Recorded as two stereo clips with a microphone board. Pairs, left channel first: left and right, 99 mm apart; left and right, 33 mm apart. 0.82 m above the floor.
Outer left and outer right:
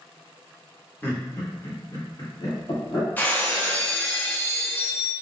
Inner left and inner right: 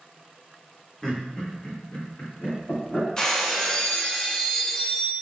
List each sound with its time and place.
1.0 s laughter: 20° left (ahead or behind), 1.2 m; by 3.1 s 55° left (ahead or behind), 2.5 m
3.2 s breaking glass: 20° left (ahead or behind), 0.6 m